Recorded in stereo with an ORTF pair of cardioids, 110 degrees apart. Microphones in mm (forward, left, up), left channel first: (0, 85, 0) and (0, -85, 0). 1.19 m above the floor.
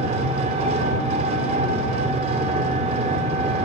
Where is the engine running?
60° right, 1.9 m.